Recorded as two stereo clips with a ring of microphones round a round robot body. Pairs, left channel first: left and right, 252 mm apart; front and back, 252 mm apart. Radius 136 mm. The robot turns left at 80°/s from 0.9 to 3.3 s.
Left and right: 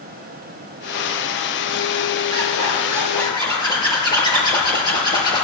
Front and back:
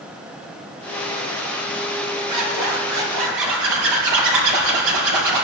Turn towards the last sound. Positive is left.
turn(degrees=165)